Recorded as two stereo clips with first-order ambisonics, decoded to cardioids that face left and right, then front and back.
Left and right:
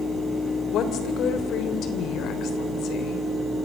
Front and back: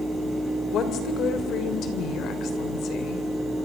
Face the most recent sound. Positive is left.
turn(degrees=45)